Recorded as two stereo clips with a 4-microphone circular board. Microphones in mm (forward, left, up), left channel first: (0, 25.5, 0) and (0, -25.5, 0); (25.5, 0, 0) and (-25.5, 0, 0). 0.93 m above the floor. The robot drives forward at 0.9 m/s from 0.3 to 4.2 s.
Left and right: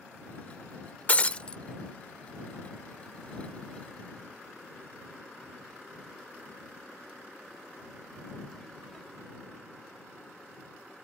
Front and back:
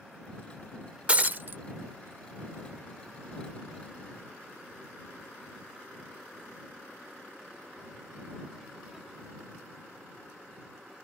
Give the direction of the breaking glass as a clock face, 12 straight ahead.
8 o'clock.